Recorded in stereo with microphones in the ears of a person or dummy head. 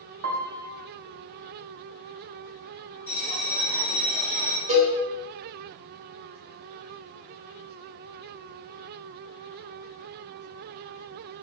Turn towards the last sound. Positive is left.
turn(degrees=-30)  # may be behind; listen again after turning